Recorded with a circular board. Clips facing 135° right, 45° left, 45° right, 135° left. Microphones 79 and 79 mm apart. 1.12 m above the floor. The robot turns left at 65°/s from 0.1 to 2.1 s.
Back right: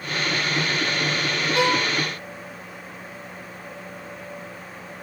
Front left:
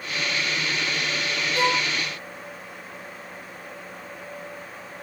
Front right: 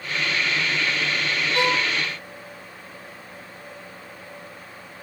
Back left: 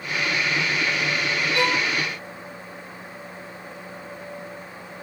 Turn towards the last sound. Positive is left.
turn(degrees=-145)